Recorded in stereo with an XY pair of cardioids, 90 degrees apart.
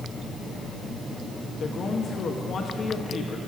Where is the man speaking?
50° left, 1.7 m.